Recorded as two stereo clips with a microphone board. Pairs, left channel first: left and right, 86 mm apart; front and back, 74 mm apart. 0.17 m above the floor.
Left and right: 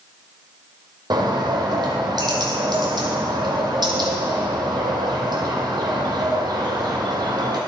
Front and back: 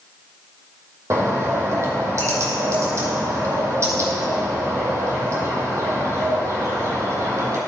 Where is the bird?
130° right, 1.5 m.